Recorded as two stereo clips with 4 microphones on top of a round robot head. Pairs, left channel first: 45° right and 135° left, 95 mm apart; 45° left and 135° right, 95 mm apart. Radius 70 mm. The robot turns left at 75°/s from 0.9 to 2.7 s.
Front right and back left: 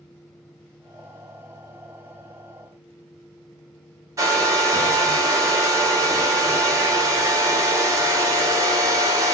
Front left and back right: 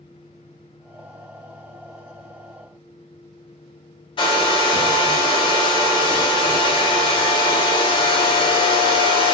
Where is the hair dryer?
80° left, 0.7 m.